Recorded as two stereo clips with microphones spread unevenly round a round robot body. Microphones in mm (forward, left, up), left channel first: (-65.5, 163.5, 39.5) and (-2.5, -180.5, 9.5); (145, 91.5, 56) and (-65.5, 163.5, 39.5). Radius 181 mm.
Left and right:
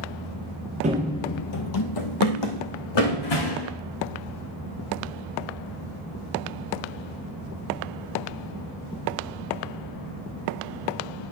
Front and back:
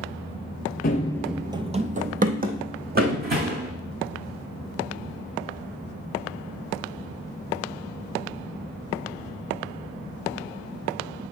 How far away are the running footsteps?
About 0.6 m.